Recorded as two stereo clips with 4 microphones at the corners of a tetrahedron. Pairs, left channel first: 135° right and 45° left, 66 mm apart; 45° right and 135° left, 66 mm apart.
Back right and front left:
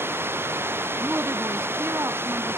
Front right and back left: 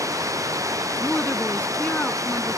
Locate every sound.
0.0 s running water: 100° left
1.0 s a woman speaking: 15° left